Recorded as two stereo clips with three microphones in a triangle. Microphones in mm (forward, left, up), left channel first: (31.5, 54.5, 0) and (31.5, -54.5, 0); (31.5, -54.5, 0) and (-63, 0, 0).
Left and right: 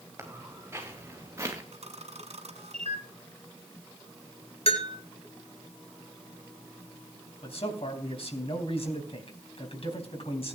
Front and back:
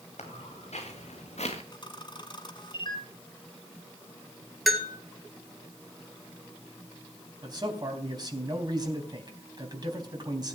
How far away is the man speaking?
About 3.5 m.